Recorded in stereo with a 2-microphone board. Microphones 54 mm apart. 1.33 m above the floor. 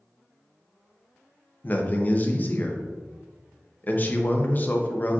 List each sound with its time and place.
1.6 s a man speaking: 35° left (ahead or behind), 0.6 m